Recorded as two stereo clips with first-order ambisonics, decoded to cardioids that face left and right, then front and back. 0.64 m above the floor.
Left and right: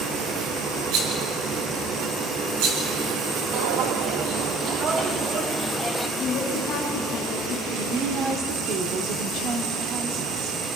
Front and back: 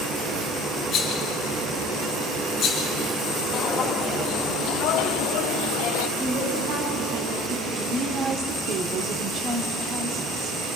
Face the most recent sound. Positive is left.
turn(degrees=-130)